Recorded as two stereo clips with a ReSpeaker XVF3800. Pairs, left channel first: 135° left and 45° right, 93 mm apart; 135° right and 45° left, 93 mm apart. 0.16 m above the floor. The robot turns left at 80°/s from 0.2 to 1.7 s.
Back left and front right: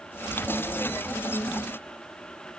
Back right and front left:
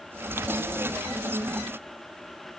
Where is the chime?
I don't hear a chime.